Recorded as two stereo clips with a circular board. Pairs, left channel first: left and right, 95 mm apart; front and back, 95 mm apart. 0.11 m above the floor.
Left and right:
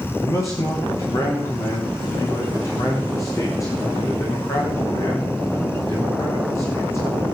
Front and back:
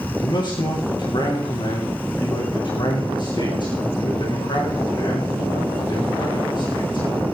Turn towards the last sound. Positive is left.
turn(degrees=35)